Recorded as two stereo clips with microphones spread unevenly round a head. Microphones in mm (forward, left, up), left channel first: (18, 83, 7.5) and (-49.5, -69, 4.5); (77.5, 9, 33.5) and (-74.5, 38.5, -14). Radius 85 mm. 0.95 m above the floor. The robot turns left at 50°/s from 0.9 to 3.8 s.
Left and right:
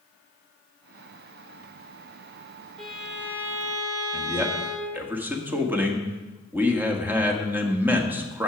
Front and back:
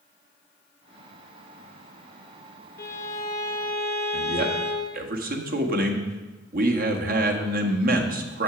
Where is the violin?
50° right, 1.5 m; by 5.0 s 100° right, 1.5 m.